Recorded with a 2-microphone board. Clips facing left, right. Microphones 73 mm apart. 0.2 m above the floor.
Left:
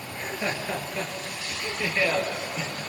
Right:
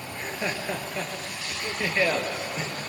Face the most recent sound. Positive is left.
turn(degrees=-35)  # may be behind; listen again after turning